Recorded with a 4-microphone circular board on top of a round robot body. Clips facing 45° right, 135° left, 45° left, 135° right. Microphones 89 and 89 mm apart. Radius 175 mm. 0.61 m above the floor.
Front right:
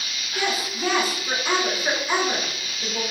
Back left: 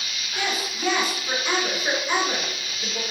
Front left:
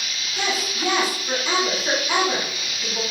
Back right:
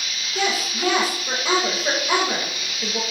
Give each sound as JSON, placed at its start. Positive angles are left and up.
{"t": 0.3, "sound": "a woman speaking", "azimuth_deg": -125, "distance_m": 3.0}